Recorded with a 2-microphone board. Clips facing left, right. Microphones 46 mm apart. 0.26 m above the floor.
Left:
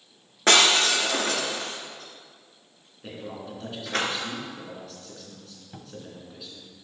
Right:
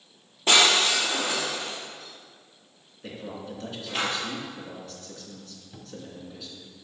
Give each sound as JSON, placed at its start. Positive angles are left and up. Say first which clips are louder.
{"t": 0.5, "sound": "breaking glass", "louder": "left 1 dB", "side_deg": 75, "distance_m": 2.5}
{"t": 3.0, "sound": "a man speaking", "louder": "even", "side_deg": 5, "distance_m": 3.0}
{"t": 5.7, "sound": "a cupboard door", "louder": "even", "side_deg": 30, "distance_m": 0.7}